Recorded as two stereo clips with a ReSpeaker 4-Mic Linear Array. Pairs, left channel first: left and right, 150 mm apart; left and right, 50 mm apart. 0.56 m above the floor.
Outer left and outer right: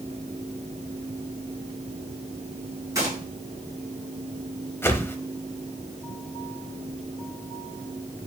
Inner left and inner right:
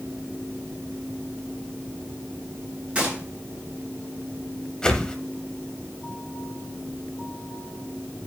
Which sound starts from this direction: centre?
A whoosh, at 4.8 s.